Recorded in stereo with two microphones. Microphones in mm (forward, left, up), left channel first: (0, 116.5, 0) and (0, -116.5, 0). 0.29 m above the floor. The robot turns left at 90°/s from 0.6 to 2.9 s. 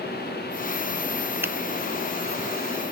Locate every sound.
1.4 s a finger snap: 10° right (ahead or behind); by 1.5 s centre (ahead or behind)